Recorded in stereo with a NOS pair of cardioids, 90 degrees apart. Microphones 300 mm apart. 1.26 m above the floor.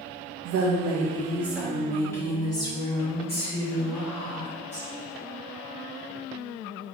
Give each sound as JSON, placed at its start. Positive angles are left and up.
{"t": 0.5, "sound": "a woman speaking", "azimuth_deg": -65, "distance_m": 0.9}